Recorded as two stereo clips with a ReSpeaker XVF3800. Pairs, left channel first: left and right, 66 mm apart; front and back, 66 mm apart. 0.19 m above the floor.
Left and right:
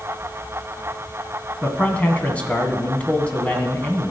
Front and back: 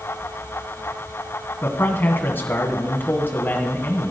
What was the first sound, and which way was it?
A man speaking, 35° left.